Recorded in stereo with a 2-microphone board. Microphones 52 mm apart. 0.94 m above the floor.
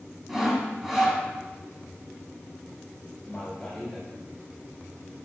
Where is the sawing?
Centre (ahead or behind), 2.5 m.